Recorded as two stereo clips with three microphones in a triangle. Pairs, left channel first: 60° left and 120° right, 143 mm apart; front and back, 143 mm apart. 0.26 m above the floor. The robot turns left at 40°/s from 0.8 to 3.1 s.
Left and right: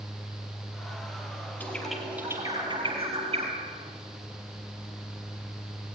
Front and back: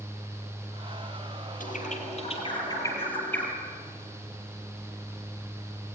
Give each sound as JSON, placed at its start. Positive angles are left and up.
{"t": 1.6, "sound": "a bird", "azimuth_deg": -15, "distance_m": 4.0}